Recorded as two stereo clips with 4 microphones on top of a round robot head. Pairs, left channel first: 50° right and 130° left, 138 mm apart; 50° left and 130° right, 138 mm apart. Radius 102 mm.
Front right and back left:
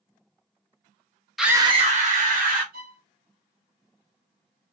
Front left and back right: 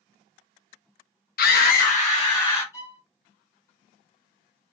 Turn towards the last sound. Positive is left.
turn(degrees=125)